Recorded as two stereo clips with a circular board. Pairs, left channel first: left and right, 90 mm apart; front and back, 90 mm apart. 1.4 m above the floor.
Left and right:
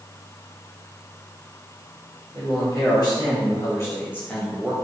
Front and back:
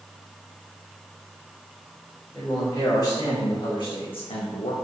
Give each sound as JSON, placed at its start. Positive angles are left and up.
{"t": 2.3, "sound": "a man speaking", "azimuth_deg": 55, "distance_m": 3.5}